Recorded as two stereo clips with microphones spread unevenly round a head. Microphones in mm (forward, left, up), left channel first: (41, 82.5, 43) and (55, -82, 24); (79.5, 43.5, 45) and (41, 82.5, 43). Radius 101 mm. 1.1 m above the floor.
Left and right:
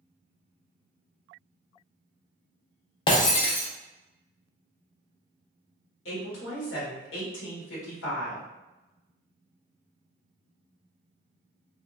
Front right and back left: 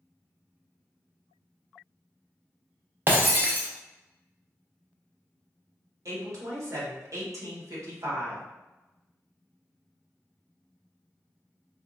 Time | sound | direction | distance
3.1 | breaking glass | 115° left | 0.5 m
6.0 | a woman speaking | 120° left | 1.2 m